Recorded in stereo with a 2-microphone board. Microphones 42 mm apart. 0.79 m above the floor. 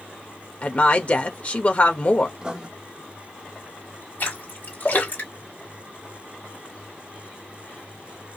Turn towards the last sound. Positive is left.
turn(degrees=50)  # may be behind; listen again after turning